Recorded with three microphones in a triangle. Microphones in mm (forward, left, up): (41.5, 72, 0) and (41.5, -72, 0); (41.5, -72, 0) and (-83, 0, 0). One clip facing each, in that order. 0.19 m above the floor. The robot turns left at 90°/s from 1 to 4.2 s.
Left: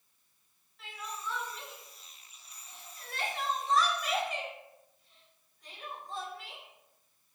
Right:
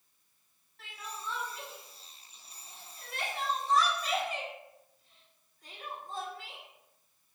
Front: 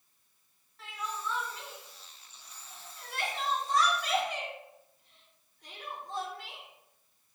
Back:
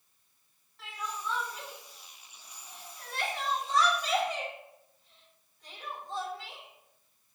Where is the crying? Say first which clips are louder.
Left 2 dB, even; 115° right, 0.8 m; by 7.3 s 45° right, 0.8 m.